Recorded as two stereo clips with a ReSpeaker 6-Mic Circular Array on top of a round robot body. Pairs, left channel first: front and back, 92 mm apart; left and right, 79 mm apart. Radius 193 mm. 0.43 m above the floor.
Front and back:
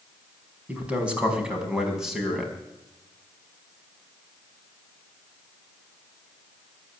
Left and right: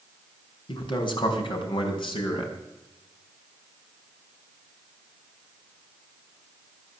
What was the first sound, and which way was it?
A man speaking, 105° left.